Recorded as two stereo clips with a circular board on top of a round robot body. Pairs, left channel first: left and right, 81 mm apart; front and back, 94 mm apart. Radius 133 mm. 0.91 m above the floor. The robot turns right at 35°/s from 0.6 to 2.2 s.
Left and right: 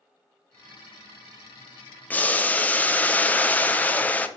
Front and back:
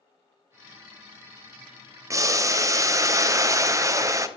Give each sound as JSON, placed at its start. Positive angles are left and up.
{"t": 2.1, "sound": "boiling", "azimuth_deg": 145, "distance_m": 0.6}